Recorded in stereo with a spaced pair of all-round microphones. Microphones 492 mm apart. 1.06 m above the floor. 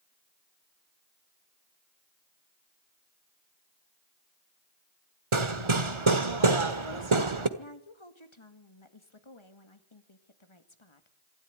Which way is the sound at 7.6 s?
65° left (ahead or behind).